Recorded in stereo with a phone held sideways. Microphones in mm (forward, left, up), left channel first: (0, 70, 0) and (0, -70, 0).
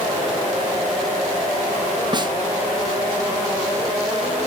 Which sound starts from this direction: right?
A snare drum, at 2.1 s.